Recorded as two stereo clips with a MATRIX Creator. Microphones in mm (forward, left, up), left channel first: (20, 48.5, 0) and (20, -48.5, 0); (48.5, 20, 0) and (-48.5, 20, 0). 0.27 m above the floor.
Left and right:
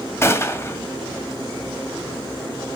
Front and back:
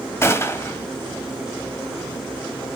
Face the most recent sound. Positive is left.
turn(degrees=45)